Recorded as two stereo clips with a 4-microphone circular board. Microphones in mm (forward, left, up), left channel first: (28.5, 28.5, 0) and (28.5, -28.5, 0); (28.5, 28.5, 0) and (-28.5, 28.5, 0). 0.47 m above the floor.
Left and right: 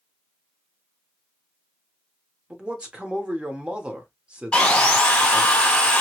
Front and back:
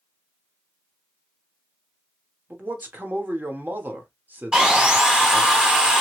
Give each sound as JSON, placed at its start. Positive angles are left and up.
{"t": 2.5, "sound": "a man speaking", "azimuth_deg": -150, "distance_m": 1.0}
{"t": 4.5, "sound": "sawing", "azimuth_deg": 120, "distance_m": 0.9}